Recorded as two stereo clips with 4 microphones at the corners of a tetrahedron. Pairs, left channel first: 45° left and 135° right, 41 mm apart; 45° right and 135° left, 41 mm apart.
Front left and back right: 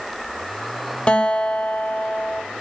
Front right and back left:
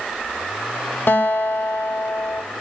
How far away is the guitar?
About 0.5 m.